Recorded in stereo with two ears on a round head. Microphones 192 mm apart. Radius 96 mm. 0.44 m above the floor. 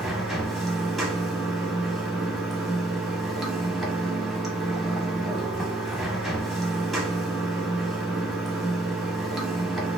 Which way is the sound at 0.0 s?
Centre (ahead or behind).